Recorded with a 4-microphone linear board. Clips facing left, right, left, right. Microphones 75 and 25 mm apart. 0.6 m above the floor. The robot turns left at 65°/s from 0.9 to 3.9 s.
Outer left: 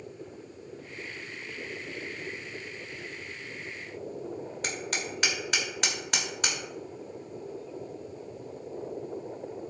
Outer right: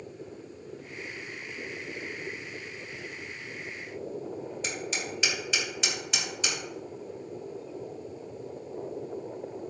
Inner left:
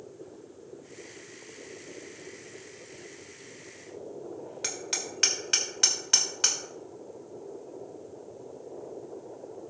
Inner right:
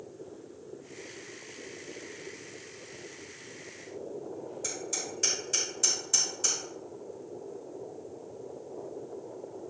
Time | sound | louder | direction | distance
4.6 | hammering | outer left 2 dB, inner left 4 dB | 60° left (ahead or behind) | 2.0 m